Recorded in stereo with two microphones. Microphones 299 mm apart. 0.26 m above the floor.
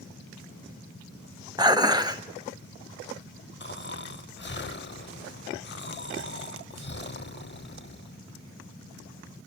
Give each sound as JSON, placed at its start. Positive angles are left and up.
{"t": 1.6, "sound": "dishes clattering", "side_deg": -15, "distance_m": 0.8}
{"t": 3.6, "sound": "snoring", "side_deg": 35, "distance_m": 0.7}